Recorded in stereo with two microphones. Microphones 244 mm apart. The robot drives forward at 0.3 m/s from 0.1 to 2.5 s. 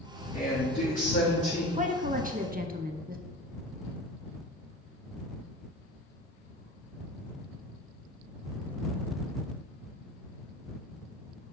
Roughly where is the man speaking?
Left.